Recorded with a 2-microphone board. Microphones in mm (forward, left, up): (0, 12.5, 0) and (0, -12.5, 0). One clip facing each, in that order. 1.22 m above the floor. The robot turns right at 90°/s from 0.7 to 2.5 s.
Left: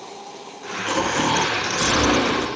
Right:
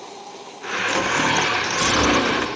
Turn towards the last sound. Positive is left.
turn(degrees=-105)